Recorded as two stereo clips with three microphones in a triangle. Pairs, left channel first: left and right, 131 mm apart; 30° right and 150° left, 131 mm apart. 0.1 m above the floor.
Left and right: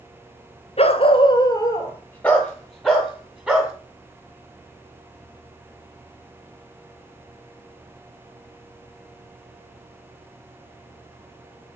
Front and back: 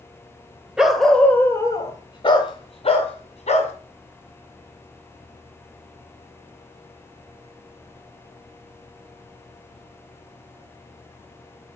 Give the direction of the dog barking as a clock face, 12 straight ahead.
10 o'clock.